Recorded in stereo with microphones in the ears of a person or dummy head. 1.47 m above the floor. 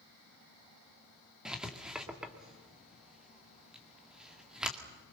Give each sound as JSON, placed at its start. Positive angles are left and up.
{"t": 1.4, "sound": "writing", "side_deg": -5, "distance_m": 2.5}